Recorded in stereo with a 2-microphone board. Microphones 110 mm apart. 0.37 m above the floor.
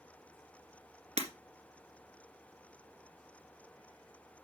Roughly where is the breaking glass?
Right.